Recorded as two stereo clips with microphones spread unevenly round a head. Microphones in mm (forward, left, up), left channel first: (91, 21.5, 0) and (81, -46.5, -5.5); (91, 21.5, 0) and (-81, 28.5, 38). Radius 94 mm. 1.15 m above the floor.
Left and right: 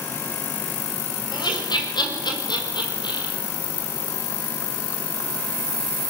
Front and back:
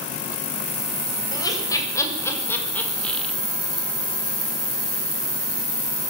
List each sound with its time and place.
1.3 s laughter: 65° left, 7 m; by 3.4 s 85° left, 4 m